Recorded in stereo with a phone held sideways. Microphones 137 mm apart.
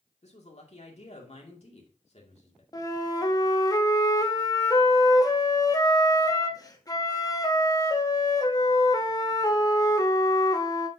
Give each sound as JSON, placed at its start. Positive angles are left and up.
{"t": 0.2, "sound": "a man speaking", "side_deg": 50, "distance_m": 2.0}
{"t": 2.7, "sound": "a flute", "side_deg": 25, "distance_m": 0.8}